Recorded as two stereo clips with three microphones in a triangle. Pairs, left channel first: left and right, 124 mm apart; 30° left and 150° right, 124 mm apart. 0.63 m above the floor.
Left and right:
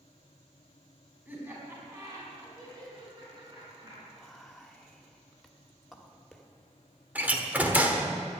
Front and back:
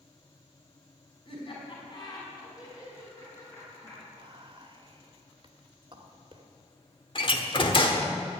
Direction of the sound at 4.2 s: Straight behind.